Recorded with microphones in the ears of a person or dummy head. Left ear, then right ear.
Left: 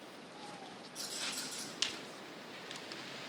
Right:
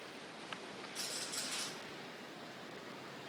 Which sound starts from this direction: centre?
A rattle, at 0.9 s.